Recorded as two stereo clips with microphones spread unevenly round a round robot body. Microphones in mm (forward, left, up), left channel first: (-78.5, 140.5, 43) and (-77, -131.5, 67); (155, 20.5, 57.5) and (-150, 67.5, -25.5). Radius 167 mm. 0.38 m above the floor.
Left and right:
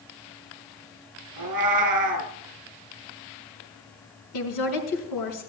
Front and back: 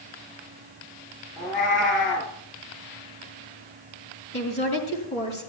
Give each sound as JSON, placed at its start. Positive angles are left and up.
{"t": 1.4, "sound": "a cat meowing", "azimuth_deg": -90, "distance_m": 1.9}
{"t": 4.3, "sound": "a woman speaking", "azimuth_deg": 55, "distance_m": 5.0}